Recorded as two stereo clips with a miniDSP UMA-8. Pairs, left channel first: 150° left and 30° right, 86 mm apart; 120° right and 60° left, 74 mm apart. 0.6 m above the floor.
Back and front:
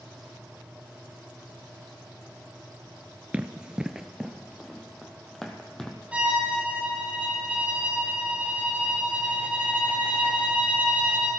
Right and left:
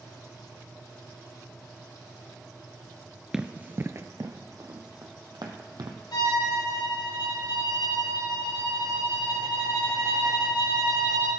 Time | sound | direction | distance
3.3 | running footsteps | straight ahead | 0.5 m
6.1 | a violin | 105° right | 2.5 m